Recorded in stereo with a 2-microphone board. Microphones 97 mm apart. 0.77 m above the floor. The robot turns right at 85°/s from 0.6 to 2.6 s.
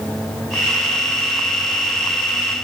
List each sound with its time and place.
Only background noise.